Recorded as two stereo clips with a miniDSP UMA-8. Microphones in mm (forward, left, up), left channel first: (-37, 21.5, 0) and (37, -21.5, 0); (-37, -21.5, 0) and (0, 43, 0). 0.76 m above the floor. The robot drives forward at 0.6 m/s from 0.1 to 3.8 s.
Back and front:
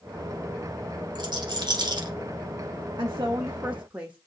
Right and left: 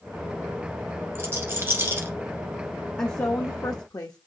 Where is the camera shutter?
I don't hear a camera shutter.